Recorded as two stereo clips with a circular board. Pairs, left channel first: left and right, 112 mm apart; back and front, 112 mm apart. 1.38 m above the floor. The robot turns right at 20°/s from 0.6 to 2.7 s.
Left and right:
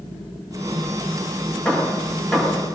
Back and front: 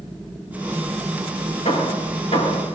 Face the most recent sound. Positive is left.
turn(degrees=-170)